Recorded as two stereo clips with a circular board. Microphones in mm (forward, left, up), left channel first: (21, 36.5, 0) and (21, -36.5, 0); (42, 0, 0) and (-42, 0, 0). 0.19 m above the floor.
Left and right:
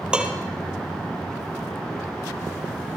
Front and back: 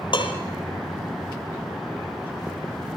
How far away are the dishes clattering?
About 3.5 m.